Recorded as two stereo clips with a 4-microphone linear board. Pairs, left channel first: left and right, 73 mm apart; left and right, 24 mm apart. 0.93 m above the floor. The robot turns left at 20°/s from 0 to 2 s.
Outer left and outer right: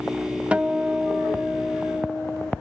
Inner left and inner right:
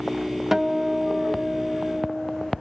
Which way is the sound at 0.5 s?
15° right (ahead or behind).